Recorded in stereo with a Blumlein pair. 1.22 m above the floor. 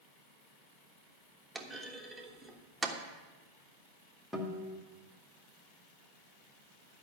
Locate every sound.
1.6 s a clunk: 5° right, 1.3 m
4.3 s a guitar: 5° left, 1.8 m